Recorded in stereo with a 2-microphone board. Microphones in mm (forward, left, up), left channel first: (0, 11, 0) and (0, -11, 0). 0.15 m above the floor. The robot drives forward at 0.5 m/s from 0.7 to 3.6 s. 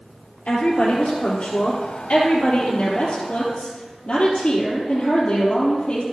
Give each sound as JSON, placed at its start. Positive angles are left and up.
{"t": 0.5, "sound": "a woman speaking", "side_deg": 70, "distance_m": 3.0}